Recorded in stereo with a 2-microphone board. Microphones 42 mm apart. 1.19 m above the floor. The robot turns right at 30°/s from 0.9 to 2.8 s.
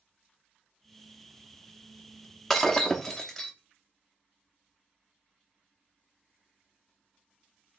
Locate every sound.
2.5 s breaking glass: 10° left (ahead or behind), 0.7 m; by 3.5 s 15° left (ahead or behind), 0.7 m